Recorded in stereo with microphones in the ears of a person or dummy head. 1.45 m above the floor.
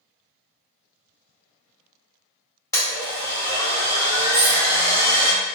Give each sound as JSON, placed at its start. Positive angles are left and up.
{"t": 2.7, "sound": "a blender", "side_deg": 15, "distance_m": 0.8}
{"t": 4.3, "sound": "cutlery clinking", "side_deg": 30, "distance_m": 1.3}